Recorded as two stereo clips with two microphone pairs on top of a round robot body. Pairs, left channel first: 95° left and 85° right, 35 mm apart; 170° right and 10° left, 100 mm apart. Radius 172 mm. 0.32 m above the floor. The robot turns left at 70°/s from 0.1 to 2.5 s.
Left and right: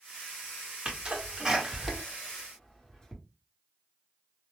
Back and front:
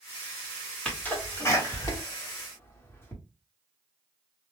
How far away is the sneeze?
About 1.5 m.